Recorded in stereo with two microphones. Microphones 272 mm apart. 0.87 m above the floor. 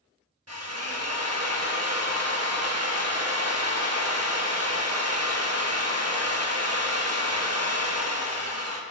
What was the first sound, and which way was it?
A drill, 65° right (ahead or behind).